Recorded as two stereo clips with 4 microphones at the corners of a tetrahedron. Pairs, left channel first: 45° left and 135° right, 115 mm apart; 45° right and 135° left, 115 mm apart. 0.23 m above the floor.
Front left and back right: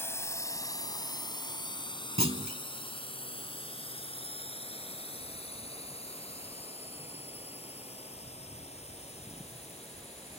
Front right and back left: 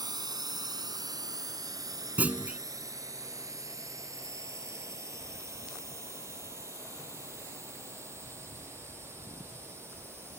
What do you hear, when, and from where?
0.0 s a drone: 105° left; by 10.4 s 65° left
2.2 s a clunk: 150° right